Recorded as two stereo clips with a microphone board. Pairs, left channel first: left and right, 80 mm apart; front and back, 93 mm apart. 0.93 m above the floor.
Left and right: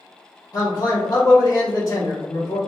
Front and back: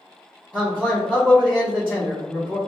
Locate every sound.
0.5 s a man speaking: 105° left, 1.2 m